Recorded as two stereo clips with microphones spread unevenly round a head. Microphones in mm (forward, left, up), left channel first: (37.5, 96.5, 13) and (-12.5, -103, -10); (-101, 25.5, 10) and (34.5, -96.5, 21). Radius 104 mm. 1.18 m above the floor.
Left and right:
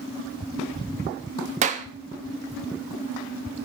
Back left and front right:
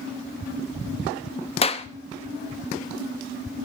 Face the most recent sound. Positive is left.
turn(degrees=-165)